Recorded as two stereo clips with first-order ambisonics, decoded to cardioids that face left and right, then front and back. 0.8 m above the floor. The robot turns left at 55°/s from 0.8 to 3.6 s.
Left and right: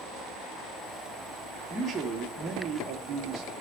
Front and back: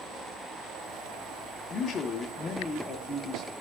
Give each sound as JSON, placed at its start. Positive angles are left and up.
{"t": 1.7, "sound": "a man speaking", "azimuth_deg": 0, "distance_m": 0.9}